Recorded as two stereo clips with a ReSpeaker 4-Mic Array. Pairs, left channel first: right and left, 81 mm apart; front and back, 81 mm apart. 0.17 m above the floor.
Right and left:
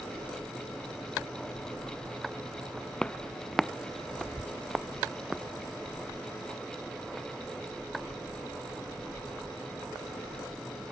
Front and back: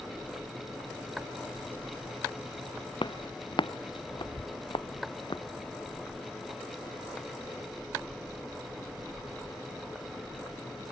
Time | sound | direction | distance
3.0 | footsteps | 10° right | ?